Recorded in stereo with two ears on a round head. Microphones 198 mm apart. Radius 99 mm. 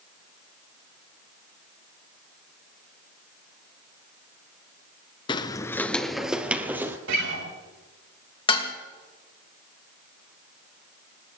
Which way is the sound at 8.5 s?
25° left (ahead or behind).